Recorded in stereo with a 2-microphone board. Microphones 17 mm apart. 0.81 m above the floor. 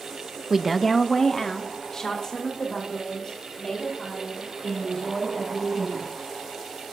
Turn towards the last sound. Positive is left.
turn(degrees=35)  # may be behind; listen again after turning